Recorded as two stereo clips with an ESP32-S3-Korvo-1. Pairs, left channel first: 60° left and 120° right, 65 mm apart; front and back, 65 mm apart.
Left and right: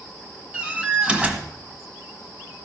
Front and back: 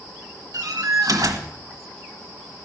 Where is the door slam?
170° left, 1.6 m.